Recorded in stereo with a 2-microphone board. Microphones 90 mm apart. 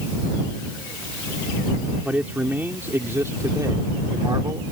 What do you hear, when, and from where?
2.0 s a man speaking: 15° right (ahead or behind); by 4.6 s 50° right (ahead or behind)